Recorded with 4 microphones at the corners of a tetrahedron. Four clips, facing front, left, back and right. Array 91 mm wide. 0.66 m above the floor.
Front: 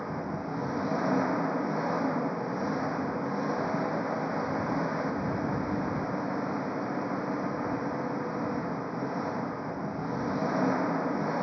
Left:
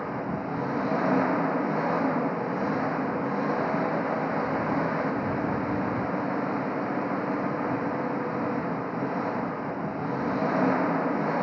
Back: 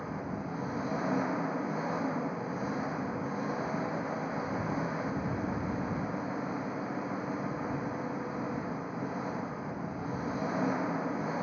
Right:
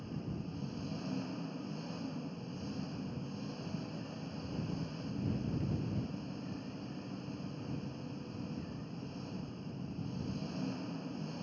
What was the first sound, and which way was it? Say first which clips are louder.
An engine running: left 13 dB, front 3 dB; 75° left.